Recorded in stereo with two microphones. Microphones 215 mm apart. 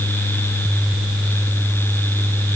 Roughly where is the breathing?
I don't hear breathing.